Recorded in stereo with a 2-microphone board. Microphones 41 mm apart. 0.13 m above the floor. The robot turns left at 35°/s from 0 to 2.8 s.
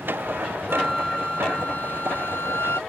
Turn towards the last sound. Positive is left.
turn(degrees=100)